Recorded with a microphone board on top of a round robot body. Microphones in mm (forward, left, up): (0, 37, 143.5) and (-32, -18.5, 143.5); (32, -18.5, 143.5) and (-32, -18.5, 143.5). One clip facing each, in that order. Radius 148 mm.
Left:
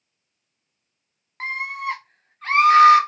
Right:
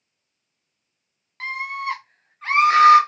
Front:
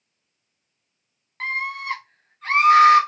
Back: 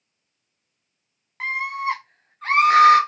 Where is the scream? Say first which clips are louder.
Even, back 2 dB; 105° left, 0.7 m; by 3.0 s straight behind, 1.0 m.